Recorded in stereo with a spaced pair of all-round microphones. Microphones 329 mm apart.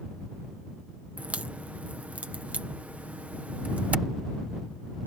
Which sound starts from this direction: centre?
A crack, at 1.2 s.